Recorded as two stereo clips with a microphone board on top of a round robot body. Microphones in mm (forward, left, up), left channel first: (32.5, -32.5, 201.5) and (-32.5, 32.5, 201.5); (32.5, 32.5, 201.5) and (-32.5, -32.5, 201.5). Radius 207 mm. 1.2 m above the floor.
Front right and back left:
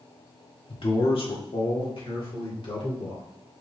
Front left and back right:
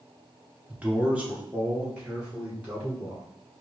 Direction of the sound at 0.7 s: 60° right.